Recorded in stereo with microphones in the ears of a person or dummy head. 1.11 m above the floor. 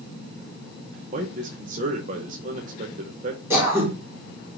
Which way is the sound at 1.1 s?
40° right (ahead or behind).